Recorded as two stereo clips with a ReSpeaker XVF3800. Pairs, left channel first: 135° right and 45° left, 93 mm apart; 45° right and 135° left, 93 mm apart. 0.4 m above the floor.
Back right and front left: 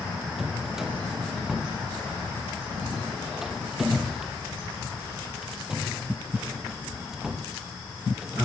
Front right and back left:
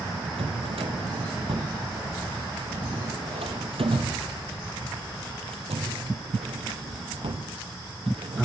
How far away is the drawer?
About 5 m.